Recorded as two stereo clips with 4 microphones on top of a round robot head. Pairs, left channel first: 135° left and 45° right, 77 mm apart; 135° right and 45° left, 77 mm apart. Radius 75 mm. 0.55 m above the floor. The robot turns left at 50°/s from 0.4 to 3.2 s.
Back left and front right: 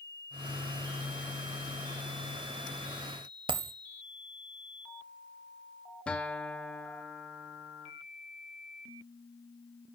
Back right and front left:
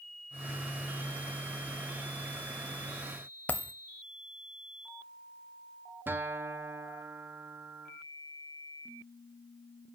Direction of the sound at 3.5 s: 60° right.